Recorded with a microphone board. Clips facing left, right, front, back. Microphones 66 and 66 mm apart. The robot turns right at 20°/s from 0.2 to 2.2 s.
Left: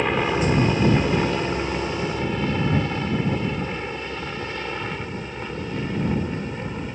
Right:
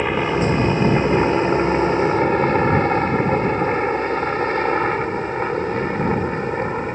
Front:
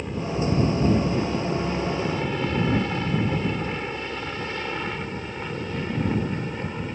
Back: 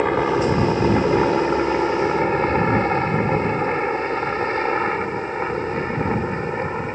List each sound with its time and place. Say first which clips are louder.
0.0 s a helicopter: right 2 dB, back 9 dB; 175° right; by 7.0 s 130° right